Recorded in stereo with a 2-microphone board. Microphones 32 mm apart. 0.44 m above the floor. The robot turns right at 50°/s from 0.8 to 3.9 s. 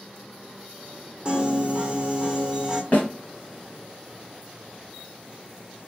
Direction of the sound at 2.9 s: 55° left (ahead or behind).